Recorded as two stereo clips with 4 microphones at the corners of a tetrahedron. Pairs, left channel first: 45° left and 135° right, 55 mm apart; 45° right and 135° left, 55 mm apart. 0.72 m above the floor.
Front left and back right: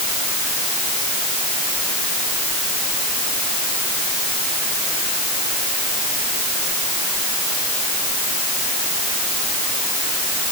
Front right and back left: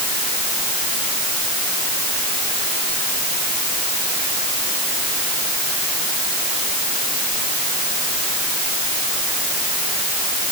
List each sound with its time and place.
Only background noise.